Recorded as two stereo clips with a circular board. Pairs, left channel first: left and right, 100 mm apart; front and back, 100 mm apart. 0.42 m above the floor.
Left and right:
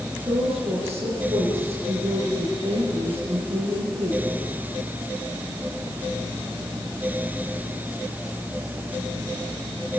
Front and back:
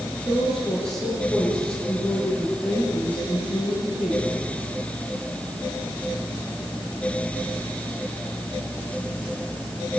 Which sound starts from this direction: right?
A woman speaking, at 0.2 s.